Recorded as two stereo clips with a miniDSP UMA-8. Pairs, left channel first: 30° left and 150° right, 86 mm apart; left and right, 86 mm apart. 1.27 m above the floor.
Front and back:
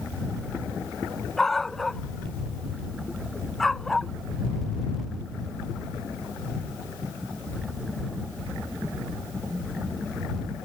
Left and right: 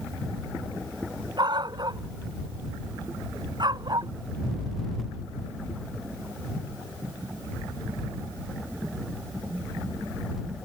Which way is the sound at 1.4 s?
55° right.